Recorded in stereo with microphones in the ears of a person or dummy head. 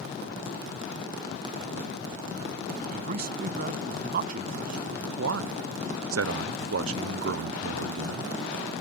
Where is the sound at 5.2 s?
75° right (ahead or behind).